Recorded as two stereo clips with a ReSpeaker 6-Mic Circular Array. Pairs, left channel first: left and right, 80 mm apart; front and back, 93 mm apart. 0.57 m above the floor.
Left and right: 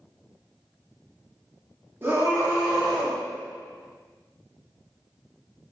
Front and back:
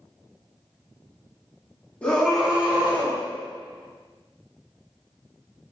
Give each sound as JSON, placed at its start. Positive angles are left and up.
{"t": 2.0, "sound": "a scream", "azimuth_deg": -65, "distance_m": 0.7}